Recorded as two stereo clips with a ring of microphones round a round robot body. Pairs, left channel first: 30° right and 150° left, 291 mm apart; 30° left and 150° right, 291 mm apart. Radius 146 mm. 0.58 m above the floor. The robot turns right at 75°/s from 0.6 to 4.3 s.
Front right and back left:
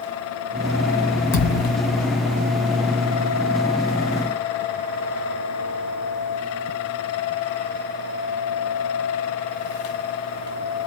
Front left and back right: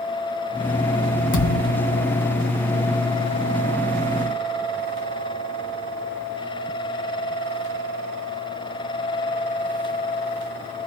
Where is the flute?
I don't hear a flute.